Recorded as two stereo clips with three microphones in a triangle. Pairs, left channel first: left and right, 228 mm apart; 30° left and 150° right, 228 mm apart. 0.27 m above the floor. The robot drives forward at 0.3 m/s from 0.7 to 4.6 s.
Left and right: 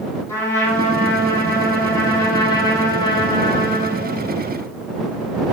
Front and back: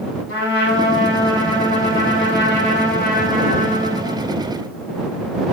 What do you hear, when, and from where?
0.3 s a trumpet: 10° left, 1.4 m; by 4.4 s 70° left, 0.7 m